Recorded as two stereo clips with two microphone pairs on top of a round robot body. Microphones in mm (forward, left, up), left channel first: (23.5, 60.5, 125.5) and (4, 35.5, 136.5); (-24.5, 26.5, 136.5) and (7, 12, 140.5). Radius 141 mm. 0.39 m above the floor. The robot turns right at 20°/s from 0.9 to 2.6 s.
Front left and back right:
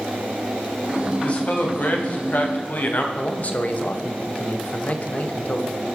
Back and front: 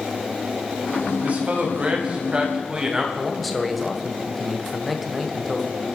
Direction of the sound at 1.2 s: 20° left.